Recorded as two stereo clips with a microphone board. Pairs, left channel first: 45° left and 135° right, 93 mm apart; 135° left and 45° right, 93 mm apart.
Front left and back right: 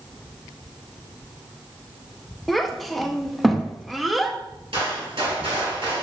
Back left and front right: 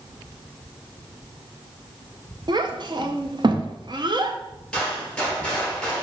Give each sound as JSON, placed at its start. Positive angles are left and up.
{"t": 2.5, "sound": "a child speaking", "azimuth_deg": -45, "distance_m": 0.5}
{"t": 4.7, "sound": "a gunshot", "azimuth_deg": -140, "distance_m": 2.0}